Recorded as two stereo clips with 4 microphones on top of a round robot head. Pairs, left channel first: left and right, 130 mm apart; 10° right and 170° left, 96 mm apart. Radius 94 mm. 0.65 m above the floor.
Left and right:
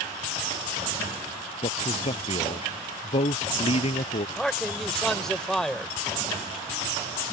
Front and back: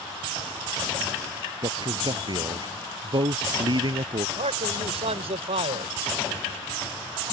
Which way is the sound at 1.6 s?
135° left.